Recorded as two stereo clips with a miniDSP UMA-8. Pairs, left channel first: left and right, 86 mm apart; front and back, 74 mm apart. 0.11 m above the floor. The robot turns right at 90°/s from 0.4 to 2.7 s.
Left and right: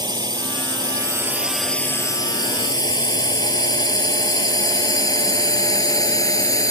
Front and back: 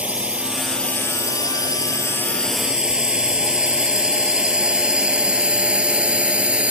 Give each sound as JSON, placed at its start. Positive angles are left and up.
{"t": 0.0, "sound": "a drone", "azimuth_deg": -110}